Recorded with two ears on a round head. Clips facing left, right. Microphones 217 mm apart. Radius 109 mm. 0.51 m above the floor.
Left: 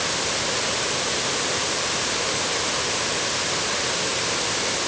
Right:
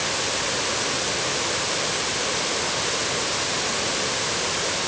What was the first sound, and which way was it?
Only background noise.